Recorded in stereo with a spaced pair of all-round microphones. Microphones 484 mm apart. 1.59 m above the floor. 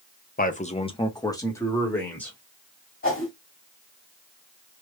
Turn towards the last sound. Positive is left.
turn(degrees=25)  # may be behind; listen again after turning